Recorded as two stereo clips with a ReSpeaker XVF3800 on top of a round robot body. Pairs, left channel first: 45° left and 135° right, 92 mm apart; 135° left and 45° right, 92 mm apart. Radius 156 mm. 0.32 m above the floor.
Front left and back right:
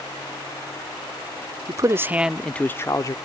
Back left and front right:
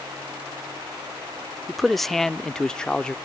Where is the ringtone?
No ringtone in this recording.